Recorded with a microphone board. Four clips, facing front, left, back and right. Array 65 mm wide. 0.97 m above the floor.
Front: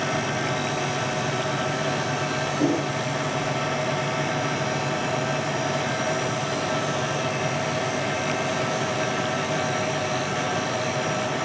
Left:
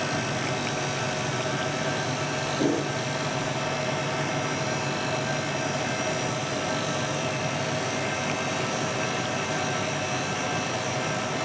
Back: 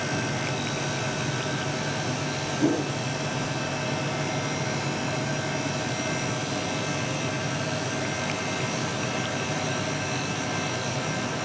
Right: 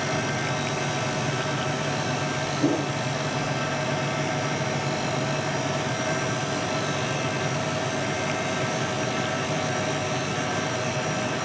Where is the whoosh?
50° left, 9.5 m.